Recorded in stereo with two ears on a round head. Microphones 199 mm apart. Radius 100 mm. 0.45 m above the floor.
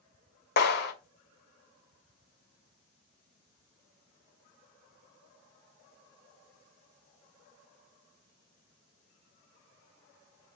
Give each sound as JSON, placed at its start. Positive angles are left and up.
{"t": 0.6, "sound": "a clap", "side_deg": 50, "distance_m": 1.8}